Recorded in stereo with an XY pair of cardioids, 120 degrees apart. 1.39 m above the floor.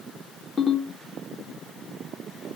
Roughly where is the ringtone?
Ahead left.